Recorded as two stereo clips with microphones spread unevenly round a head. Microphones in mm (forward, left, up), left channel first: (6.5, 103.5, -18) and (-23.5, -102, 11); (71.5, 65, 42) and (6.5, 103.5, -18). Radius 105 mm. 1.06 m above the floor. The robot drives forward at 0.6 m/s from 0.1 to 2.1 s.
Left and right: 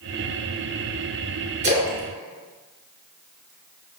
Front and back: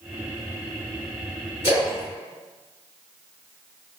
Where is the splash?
140° right, 3.5 m; by 3.5 s 145° right, 3.5 m.